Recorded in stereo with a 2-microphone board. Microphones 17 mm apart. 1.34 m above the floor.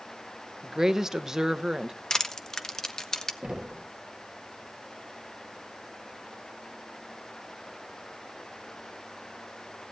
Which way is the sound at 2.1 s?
40° left (ahead or behind).